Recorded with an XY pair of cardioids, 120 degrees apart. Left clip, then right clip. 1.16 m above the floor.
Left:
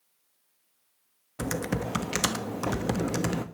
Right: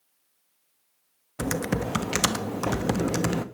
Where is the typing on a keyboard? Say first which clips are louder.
Right 3 dB; 15° right, 1.0 m.